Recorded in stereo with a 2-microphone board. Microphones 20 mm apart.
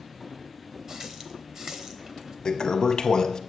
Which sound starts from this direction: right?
A running tap, at 0.9 s.